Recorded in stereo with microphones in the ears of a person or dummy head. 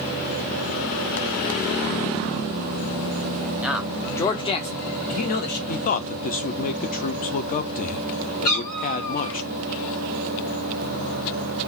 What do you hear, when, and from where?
3.6 s a man speaking: 5° right (ahead or behind), 0.8 m; by 5.6 s 60° left (ahead or behind), 1.1 m
5.7 s a man speaking: 50° left (ahead or behind), 0.6 m
8.4 s a cat meowing: 20° left (ahead or behind), 0.8 m